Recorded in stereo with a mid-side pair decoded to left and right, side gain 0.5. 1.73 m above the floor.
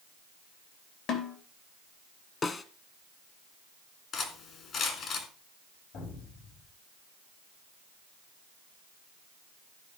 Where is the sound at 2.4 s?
35° left, 1.5 m.